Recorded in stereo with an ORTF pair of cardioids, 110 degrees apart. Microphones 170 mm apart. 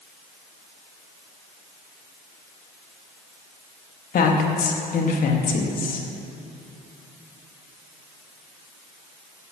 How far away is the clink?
No clink in this recording.